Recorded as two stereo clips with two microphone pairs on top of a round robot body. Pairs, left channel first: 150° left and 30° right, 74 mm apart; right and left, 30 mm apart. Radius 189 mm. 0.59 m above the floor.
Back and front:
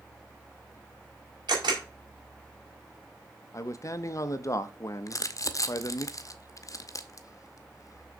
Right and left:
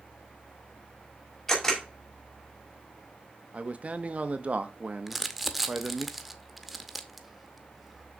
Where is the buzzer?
I don't hear a buzzer.